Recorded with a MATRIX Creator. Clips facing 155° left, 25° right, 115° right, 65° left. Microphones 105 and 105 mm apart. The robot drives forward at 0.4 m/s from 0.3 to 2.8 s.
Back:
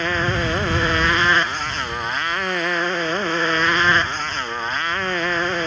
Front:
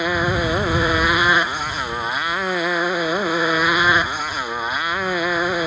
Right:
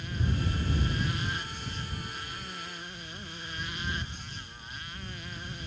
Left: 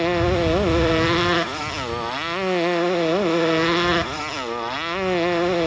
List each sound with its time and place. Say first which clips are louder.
0.0 s a motorcycle: front 2 dB, left 16 dB; 60° left